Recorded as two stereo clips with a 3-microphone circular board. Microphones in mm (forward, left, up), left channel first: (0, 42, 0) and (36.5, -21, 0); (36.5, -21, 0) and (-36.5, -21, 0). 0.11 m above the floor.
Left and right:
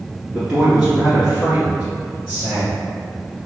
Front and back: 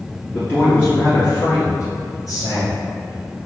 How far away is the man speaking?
About 1.7 m.